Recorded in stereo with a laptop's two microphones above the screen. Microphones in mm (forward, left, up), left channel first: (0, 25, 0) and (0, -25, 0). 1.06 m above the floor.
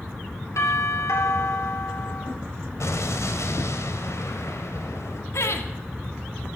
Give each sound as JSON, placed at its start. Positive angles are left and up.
{"t": 0.6, "sound": "a doorbell", "side_deg": 80, "distance_m": 3.5}
{"t": 2.8, "sound": "an explosion", "side_deg": 75, "distance_m": 1.9}
{"t": 5.3, "sound": "laughter", "side_deg": 65, "distance_m": 1.9}